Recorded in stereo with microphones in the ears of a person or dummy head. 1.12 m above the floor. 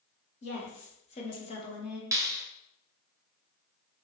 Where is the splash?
No splash in this recording.